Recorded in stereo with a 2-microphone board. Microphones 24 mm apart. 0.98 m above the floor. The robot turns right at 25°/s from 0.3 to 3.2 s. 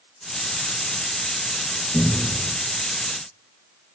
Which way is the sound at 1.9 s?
60° left (ahead or behind).